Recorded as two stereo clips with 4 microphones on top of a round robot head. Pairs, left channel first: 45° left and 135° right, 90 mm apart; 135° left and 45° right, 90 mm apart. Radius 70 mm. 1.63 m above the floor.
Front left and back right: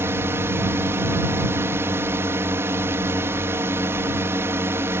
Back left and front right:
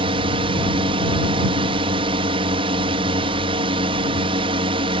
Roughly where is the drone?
Right.